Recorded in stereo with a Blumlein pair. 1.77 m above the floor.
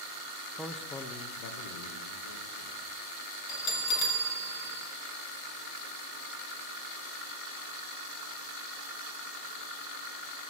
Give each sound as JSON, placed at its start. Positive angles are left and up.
{"t": 0.6, "sound": "a man speaking", "azimuth_deg": -5, "distance_m": 0.8}
{"t": 3.5, "sound": "a bell", "azimuth_deg": 35, "distance_m": 2.5}